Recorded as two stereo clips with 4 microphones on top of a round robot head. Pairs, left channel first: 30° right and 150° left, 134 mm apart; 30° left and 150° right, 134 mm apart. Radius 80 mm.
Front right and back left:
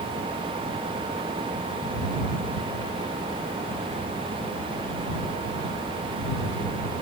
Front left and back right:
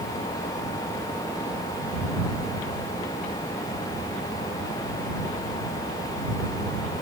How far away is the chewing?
No chewing in this recording.